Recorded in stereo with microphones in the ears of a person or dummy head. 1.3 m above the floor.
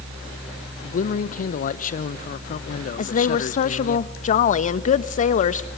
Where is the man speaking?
45° left (ahead or behind), 0.7 m.